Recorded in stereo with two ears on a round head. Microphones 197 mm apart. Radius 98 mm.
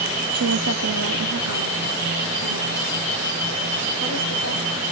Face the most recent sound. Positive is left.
turn(degrees=-75)  # may be behind; listen again after turning